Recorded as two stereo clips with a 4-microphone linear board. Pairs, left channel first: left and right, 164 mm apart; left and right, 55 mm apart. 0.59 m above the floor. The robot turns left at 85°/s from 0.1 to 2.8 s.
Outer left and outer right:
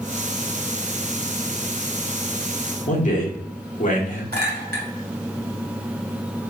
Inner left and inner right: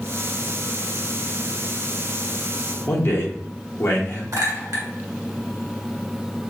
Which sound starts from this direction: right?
A clink, at 4.3 s.